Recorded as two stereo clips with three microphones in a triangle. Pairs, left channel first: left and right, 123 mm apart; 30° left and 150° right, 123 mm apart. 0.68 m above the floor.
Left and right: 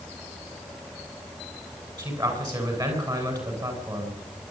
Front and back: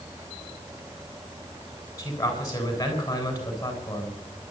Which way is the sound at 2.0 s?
35° right.